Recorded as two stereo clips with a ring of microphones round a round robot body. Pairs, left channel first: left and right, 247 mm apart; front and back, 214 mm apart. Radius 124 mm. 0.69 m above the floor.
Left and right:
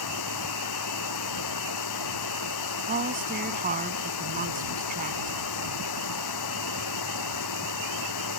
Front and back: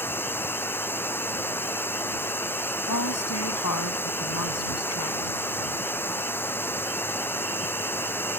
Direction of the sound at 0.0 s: 80° left.